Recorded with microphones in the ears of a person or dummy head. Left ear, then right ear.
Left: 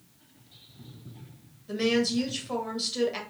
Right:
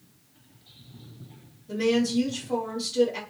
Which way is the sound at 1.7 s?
55° left (ahead or behind).